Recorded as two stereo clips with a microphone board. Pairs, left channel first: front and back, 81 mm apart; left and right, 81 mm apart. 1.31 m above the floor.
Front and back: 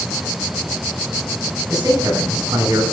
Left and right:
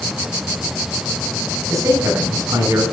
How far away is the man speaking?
About 5.5 m.